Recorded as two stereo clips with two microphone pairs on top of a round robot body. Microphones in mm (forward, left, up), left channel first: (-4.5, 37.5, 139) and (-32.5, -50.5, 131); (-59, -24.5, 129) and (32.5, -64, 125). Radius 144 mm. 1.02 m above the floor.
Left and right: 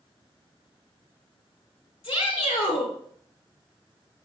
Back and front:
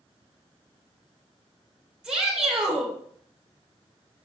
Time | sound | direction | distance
2.0 | a shout | 60° left | 3.5 m